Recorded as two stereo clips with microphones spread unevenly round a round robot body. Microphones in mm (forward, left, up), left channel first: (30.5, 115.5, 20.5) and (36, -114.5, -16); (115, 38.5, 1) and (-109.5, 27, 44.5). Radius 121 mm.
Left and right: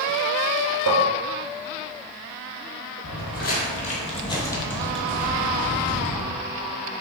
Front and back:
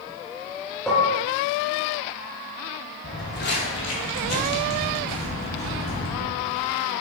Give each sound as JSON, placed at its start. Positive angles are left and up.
{"t": 0.9, "sound": "dishes clattering", "azimuth_deg": -80, "distance_m": 0.7}
{"t": 3.0, "sound": "footsteps", "azimuth_deg": 60, "distance_m": 1.7}